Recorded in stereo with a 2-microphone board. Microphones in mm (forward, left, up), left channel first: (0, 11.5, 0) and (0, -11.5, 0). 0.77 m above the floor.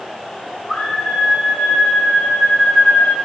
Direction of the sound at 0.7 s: 45° left (ahead or behind).